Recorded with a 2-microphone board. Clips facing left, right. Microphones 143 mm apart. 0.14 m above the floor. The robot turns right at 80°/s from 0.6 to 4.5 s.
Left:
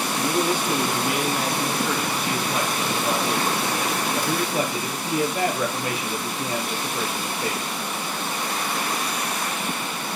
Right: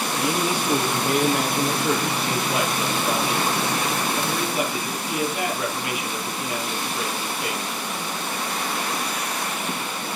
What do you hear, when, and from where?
0.2 s a man speaking: 170° right, 3.5 m; by 7.7 s 145° left, 3.5 m